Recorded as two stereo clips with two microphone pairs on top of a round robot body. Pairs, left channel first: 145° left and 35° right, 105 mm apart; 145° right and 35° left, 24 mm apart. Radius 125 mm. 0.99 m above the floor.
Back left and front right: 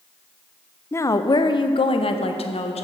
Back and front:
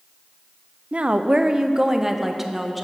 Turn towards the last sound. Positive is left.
turn(degrees=125)